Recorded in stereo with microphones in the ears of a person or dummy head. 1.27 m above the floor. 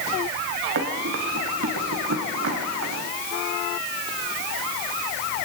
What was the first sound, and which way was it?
Running footsteps, 75° right (ahead or behind).